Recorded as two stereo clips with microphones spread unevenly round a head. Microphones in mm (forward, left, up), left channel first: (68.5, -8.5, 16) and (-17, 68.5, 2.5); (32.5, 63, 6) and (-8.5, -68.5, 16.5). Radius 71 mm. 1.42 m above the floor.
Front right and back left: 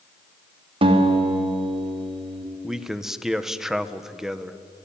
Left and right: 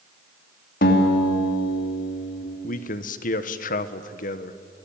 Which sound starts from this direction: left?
A guitar, at 0.8 s.